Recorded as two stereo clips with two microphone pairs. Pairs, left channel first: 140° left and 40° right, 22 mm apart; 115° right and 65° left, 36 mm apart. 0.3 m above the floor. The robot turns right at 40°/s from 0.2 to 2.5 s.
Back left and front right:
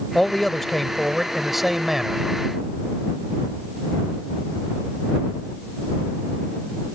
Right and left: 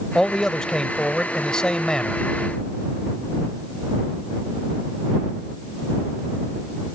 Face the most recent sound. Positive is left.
turn(degrees=-70)